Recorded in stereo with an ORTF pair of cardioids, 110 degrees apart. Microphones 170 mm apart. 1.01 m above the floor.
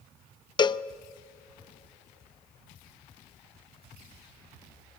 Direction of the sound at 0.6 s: 25° left.